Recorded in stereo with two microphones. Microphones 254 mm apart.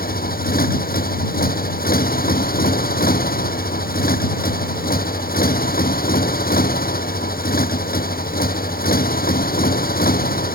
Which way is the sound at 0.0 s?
35° left (ahead or behind).